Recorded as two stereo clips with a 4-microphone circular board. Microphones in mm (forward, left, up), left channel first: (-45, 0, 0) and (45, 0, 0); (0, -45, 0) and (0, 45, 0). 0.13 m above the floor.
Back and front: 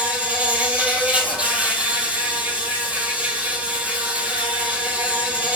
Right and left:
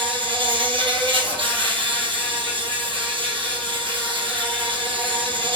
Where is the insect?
75° left, 1.5 m.